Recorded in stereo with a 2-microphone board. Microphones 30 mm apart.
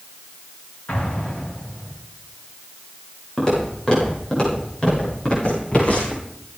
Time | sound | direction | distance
0.9 | an explosion | 50° left (ahead or behind) | 8.5 m
3.4 | footsteps | 20° left (ahead or behind) | 7 m